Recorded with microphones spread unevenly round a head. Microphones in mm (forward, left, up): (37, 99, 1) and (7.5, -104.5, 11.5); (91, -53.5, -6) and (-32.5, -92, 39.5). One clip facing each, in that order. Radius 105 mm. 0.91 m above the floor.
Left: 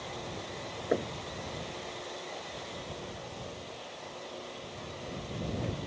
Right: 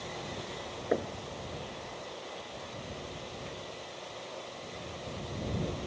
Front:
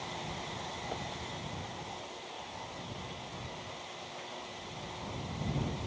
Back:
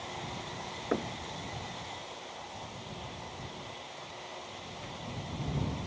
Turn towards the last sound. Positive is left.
turn(degrees=170)